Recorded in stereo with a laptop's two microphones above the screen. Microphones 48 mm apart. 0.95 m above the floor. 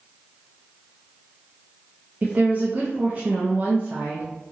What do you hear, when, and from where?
2.2 s a woman speaking: 35° right (ahead or behind), 0.5 m